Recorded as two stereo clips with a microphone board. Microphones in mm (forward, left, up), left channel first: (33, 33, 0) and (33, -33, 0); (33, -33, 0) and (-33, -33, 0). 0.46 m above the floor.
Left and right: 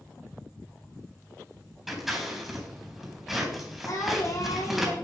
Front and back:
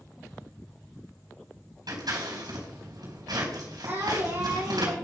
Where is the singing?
125° left, 4.5 m.